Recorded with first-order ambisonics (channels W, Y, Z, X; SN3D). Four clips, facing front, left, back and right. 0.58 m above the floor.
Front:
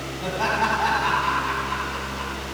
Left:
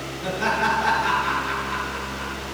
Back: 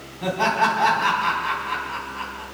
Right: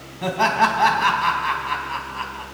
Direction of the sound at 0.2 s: 100° right.